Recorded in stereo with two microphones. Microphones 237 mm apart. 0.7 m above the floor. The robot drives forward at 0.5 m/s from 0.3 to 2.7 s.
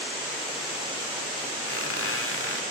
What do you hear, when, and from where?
1.7 s a squeak: 70° left (ahead or behind), 1.3 m; by 2.6 s 55° left (ahead or behind), 1.5 m